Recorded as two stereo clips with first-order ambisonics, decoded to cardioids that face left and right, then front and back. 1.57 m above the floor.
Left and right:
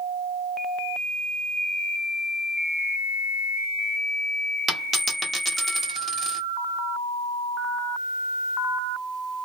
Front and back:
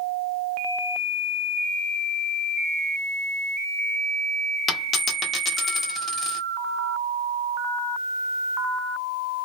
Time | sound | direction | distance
4.7 | a dropped coin | 45° right | 1.0 m